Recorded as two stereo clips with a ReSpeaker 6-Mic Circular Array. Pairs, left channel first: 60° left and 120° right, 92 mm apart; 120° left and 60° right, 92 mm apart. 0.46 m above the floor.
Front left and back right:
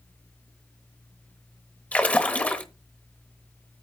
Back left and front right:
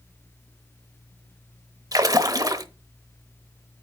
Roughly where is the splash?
Ahead.